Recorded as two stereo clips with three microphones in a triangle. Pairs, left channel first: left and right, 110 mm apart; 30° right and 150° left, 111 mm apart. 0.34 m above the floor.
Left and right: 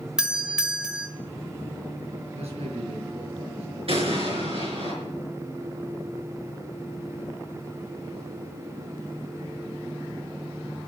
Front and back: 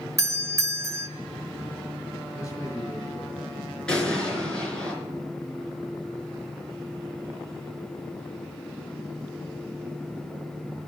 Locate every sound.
0.2 s a doorbell: 170° right, 1.5 m
2.3 s a man speaking: 90° right, 5.5 m
3.9 s an explosion: 110° right, 4.5 m